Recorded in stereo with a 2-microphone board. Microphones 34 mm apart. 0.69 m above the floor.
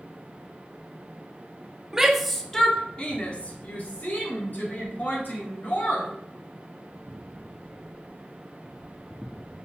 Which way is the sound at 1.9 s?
15° right (ahead or behind).